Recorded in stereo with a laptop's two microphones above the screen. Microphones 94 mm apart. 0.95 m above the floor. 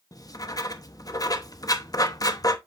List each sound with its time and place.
0.1 s writing: 40° left (ahead or behind), 0.9 m